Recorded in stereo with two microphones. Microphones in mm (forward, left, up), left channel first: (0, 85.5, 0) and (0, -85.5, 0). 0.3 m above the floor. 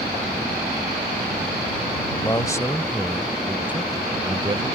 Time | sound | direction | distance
2.2 | a man speaking | 25° left (ahead or behind) | ?